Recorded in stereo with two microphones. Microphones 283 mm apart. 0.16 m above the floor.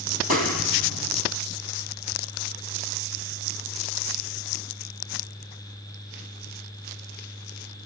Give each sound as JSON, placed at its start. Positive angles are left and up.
{"t": 0.3, "sound": "a clap", "side_deg": 55, "distance_m": 4.0}